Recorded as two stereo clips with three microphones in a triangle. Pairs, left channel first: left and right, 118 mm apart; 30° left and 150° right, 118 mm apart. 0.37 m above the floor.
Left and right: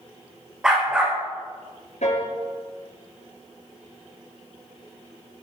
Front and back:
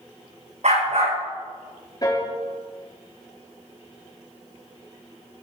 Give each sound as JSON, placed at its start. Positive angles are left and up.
{"t": 0.6, "sound": "a dog barking", "azimuth_deg": -175, "distance_m": 5.5}
{"t": 2.0, "sound": "a piano", "azimuth_deg": 85, "distance_m": 4.5}